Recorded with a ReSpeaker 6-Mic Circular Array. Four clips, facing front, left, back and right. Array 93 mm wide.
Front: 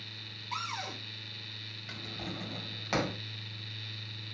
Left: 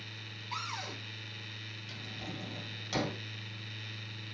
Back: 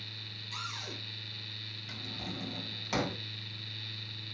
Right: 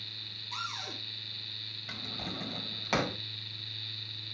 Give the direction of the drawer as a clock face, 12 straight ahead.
2 o'clock.